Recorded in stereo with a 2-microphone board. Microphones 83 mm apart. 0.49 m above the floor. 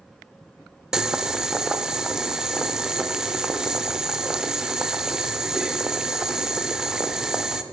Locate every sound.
0.9 s boiling: 10° right (ahead or behind), 0.6 m